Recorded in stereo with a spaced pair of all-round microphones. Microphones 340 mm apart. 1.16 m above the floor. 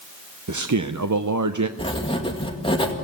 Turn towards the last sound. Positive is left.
turn(degrees=15)  # may be behind; listen again after turning